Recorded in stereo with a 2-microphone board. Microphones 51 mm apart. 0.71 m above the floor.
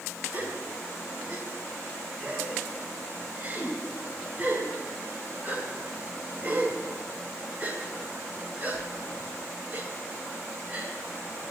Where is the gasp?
30° right (ahead or behind), 3 m.